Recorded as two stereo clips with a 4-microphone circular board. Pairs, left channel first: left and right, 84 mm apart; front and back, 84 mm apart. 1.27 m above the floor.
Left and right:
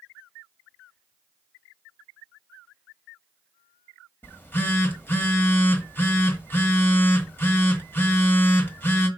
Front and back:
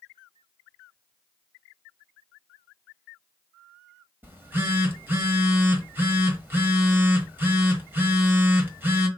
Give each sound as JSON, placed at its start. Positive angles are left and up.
{"t": 4.2, "sound": "a phone buzzing", "azimuth_deg": 135, "distance_m": 1.2}